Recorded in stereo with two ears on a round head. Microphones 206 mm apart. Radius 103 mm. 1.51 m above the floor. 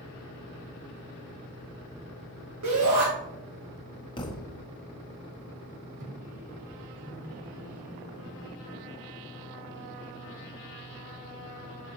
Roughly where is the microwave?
Right.